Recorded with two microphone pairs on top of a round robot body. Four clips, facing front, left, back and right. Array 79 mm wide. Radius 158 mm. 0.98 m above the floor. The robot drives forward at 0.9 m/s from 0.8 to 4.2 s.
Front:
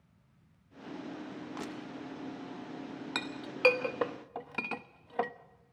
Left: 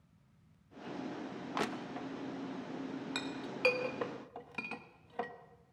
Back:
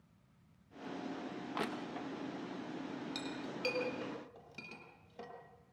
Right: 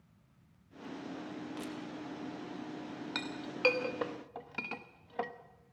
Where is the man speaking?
I don't hear a man speaking.